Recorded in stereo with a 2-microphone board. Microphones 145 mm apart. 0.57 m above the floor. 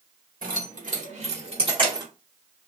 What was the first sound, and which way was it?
Keys jangling, 75° right (ahead or behind).